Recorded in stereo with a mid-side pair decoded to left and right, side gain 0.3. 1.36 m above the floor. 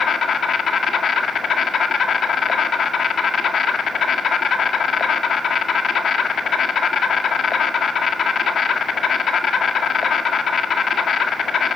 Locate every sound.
0.0 s an insect: 70° left, 1.7 m